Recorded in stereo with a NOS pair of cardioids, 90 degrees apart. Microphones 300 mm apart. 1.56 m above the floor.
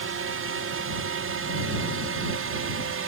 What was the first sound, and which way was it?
A drone, 45° right.